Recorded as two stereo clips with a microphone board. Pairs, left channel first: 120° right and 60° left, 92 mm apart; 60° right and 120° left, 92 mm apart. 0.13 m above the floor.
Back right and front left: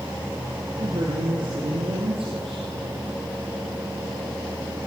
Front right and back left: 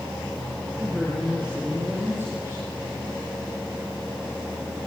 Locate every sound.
0.8 s a man speaking: 30° left, 5 m; by 2.7 s 60° left, 6 m